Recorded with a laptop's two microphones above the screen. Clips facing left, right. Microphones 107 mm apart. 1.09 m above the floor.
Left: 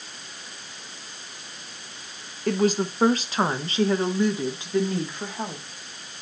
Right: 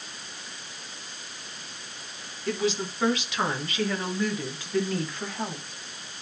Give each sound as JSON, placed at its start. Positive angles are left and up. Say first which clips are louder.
{"t": 2.5, "sound": "a woman speaking", "louder": "left 5 dB", "side_deg": 50, "distance_m": 1.1}